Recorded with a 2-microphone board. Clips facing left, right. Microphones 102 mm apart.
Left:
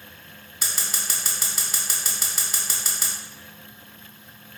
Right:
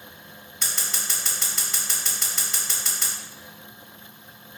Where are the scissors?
5° left (ahead or behind), 0.8 m.